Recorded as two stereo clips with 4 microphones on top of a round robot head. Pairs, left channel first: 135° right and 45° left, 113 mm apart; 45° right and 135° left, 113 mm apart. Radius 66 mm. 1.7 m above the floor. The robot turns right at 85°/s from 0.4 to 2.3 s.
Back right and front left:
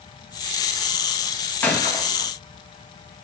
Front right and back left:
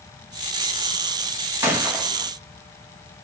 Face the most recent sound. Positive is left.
turn(degrees=-135)